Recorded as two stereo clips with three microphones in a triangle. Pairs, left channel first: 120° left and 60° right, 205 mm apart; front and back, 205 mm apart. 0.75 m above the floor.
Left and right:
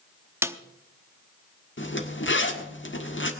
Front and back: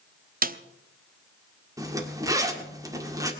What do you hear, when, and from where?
0.4 s a snare drum: 135° right, 0.7 m
1.8 s a zipper: 110° left, 1.6 m